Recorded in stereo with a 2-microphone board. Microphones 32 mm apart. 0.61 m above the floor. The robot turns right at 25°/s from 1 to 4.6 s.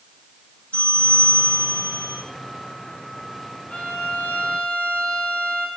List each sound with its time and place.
0.7 s a bell: 45° left, 7 m; by 2.2 s 75° left, 7 m
3.7 s a violin: 55° left (ahead or behind), 3 m; by 5.7 s 35° left (ahead or behind), 3 m